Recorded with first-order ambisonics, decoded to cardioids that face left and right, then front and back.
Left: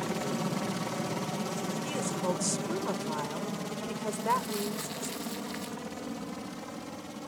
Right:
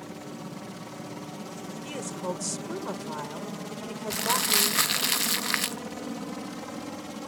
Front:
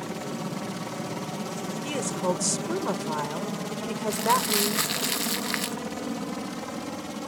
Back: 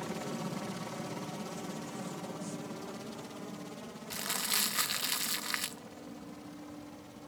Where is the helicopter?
60° left; by 7.3 s 20° right.